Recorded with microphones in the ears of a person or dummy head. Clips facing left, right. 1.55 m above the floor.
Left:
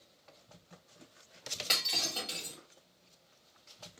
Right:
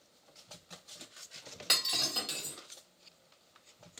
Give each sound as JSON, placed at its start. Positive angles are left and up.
{"t": 1.7, "sound": "breaking glass", "side_deg": -15, "distance_m": 1.4}